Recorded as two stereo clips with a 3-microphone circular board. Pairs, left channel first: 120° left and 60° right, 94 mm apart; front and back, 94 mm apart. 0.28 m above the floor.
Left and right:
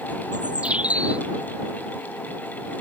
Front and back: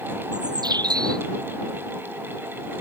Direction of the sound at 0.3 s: 135° right.